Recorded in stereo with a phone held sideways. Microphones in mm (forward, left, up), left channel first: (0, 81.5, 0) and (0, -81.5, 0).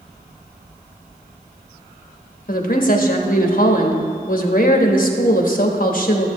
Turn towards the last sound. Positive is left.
turn(degrees=60)  # may be behind; listen again after turning